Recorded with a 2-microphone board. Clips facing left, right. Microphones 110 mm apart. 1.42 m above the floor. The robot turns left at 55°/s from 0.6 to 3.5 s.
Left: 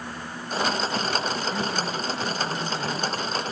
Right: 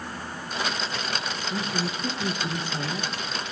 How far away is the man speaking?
About 1.9 m.